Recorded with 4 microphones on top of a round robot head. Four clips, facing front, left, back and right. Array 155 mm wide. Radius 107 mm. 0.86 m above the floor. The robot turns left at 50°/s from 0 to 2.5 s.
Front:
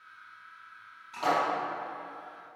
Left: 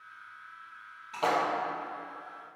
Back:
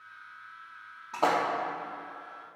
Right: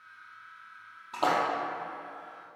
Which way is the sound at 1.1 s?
145° right.